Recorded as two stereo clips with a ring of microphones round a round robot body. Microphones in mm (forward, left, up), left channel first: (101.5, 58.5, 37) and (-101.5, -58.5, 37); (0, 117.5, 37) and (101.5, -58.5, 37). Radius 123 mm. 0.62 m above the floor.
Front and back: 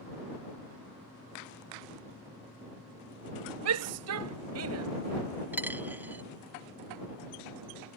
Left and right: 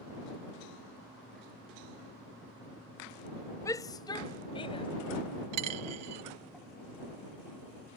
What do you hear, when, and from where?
3.6 s a shout: 165° right; by 4.9 s 170° right
5.5 s a dropped coin: 65° right